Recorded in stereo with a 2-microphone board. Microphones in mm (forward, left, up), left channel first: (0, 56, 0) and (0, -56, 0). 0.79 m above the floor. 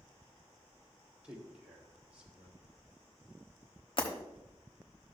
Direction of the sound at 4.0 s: 45° left (ahead or behind).